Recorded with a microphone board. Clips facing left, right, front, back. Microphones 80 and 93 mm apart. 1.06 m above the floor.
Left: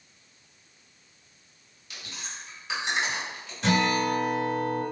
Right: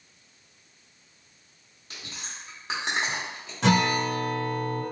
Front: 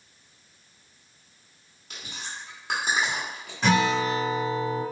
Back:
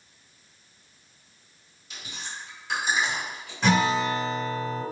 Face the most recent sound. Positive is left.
turn(degrees=-90)